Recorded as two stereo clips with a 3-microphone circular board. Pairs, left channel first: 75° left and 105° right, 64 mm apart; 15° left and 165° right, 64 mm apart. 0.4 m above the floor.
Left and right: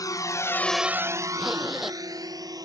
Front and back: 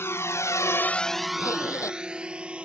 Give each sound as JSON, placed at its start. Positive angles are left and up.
{"t": 0.0, "sound": "a drone", "azimuth_deg": 60}
{"t": 1.4, "sound": "a zipper", "azimuth_deg": -20}